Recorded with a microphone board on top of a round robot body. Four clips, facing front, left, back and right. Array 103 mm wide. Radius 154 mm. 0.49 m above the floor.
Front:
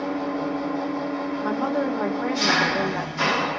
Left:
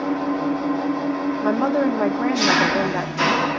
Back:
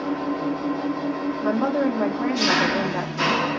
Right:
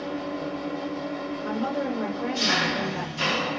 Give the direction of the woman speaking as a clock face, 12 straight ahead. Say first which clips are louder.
Left 9 dB, back 4 dB; 9 o'clock.